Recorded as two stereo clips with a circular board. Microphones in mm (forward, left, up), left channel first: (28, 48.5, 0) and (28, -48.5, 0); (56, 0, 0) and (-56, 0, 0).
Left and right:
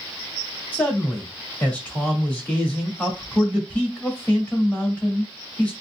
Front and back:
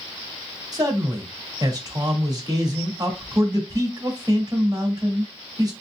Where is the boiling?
No boiling in this recording.